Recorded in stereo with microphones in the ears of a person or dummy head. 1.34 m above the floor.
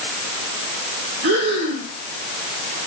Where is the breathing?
60° right (ahead or behind), 5 m.